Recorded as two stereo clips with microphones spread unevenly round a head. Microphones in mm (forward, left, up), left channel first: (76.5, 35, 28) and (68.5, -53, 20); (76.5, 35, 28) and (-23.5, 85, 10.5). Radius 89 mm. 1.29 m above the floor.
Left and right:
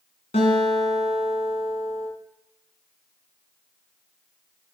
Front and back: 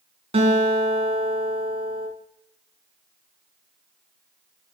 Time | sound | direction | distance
0.3 | a guitar | 115° left | 4.5 m